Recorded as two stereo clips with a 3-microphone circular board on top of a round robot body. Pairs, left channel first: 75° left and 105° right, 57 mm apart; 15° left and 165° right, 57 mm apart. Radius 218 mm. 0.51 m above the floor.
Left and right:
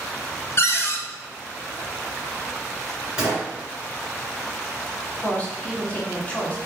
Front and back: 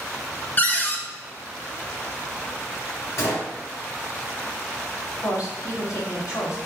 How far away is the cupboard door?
About 1.1 m.